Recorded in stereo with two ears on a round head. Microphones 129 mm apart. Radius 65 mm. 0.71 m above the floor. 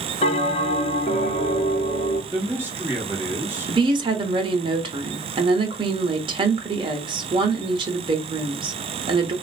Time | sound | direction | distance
0.2 | a bell | 40° left (ahead or behind) | 1.3 m
2.3 | a man speaking | 15° right (ahead or behind) | 2 m
3.7 | a woman speaking | 35° right (ahead or behind) | 0.9 m